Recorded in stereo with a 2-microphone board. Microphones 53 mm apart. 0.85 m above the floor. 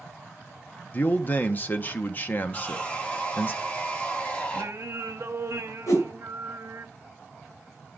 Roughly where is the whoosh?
Left.